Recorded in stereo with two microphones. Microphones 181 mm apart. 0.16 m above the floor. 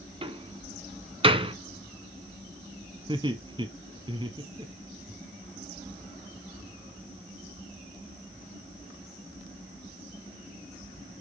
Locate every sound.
0.2 s a door slam: 30° right (ahead or behind), 0.9 m
3.1 s laughter: 25° right (ahead or behind), 1.2 m